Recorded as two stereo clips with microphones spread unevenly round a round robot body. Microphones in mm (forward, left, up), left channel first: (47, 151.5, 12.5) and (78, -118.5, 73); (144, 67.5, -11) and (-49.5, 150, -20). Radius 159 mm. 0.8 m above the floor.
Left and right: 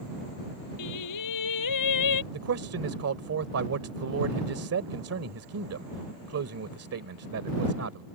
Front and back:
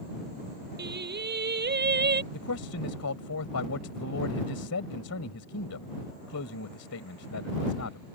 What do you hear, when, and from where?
0.8 s singing: 120° left
2.3 s a man speaking: 50° right